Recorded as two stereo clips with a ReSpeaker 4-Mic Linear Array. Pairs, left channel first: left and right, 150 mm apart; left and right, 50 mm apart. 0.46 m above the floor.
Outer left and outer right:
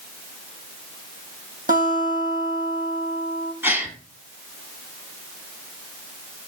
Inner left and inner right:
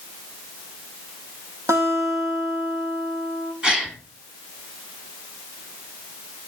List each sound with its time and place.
1.7 s a guitar: 65° right (ahead or behind), 4.5 m
3.6 s a gasp: 15° right (ahead or behind), 2.5 m